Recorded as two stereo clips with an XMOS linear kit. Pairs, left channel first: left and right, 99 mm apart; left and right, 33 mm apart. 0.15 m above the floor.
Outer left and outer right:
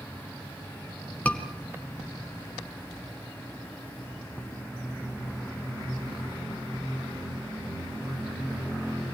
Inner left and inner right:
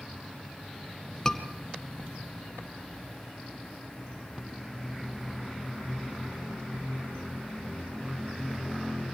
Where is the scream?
15° left (ahead or behind), 2 m.